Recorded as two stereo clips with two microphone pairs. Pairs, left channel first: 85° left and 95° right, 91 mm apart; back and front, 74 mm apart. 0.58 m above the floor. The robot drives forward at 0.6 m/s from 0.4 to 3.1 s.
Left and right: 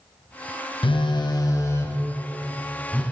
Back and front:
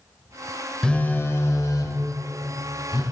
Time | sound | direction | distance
0.8 | a phone buzzing | 100° left | 0.5 m